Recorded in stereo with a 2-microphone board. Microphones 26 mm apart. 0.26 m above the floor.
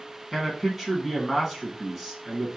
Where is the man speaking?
10° right (ahead or behind), 1.9 m.